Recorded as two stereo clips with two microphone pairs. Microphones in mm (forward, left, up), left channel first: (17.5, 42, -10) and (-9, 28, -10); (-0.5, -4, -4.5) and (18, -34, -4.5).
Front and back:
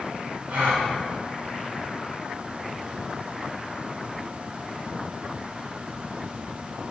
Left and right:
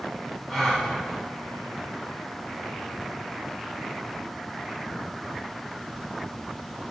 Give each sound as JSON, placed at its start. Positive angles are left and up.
{"t": 0.5, "sound": "a gasp", "azimuth_deg": -155, "distance_m": 1.2}